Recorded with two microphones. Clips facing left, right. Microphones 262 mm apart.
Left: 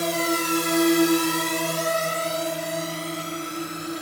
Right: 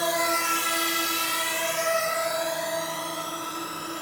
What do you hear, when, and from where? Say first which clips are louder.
0.0 s a drone: left 5 dB; 30° left (ahead or behind); by 4.0 s 20° left (ahead or behind)